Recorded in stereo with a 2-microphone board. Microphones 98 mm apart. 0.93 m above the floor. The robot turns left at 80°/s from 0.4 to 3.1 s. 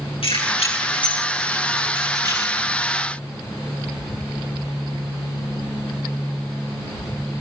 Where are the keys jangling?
70° left (ahead or behind), 8.5 m; by 2.5 s 60° right (ahead or behind), 8.5 m.